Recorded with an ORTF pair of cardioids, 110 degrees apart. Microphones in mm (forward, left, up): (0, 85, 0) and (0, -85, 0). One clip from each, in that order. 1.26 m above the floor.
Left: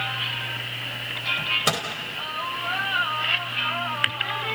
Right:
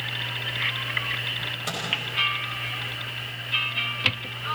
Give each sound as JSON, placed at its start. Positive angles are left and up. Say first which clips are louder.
{"t": 1.4, "sound": "a microwave", "louder": "left 7 dB", "azimuth_deg": 60, "distance_m": 4.5}